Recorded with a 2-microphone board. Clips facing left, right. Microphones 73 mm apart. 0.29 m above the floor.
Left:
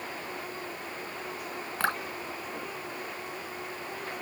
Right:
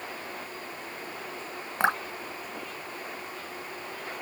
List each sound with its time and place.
1.8 s dripping: 20° right (ahead or behind)